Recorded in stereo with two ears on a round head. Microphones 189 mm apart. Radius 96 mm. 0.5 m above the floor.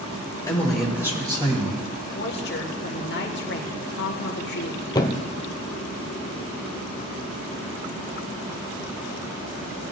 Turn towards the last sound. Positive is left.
turn(degrees=20)  # may be behind; listen again after turning